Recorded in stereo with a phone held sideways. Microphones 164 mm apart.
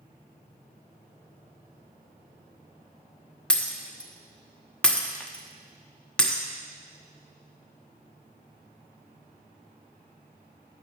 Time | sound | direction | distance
3.5 | breaking glass | 5° left (ahead or behind) | 1.0 m